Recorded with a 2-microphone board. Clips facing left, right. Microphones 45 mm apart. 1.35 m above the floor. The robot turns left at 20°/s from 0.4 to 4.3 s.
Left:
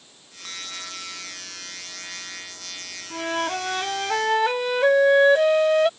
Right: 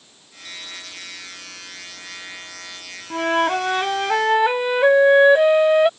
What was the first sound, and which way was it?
A bell, 85° left.